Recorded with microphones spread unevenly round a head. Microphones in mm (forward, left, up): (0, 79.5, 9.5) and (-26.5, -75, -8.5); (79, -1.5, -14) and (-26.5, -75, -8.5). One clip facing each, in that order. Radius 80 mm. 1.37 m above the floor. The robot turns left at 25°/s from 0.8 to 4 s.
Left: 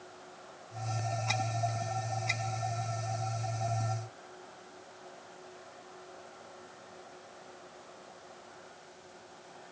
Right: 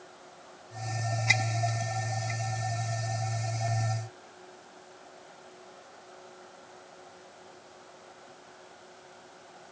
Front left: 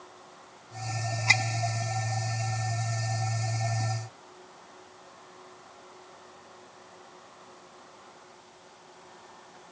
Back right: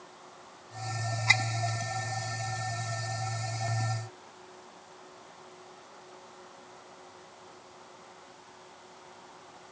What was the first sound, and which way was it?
Only background noise.